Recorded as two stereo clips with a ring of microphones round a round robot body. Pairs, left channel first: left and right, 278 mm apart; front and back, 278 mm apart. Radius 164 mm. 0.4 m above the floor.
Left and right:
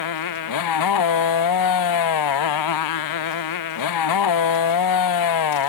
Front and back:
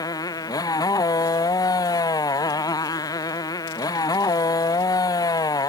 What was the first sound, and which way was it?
A motorcycle, 80° left.